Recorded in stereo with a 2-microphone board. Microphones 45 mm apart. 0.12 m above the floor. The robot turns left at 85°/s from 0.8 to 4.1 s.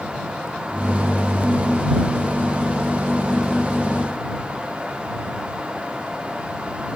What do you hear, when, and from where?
Only background noise.